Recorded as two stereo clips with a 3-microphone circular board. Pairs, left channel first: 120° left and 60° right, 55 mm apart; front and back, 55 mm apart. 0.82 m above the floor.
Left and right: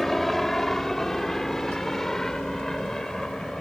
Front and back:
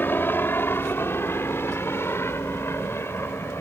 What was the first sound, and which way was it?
A helicopter, 35° left.